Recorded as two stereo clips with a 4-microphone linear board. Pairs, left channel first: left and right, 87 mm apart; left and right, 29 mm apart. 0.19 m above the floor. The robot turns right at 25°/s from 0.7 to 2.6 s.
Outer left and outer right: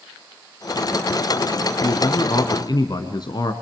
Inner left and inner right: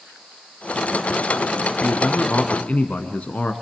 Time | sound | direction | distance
1.8 | a man speaking | 50° left (ahead or behind) | 1.7 m